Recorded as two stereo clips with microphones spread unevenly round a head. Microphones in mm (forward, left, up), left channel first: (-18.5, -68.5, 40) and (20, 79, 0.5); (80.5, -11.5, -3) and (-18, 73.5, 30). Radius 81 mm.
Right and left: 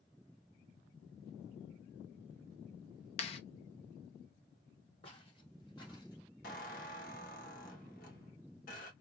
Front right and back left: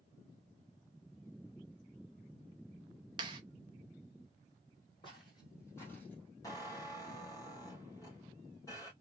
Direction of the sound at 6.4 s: 120° right.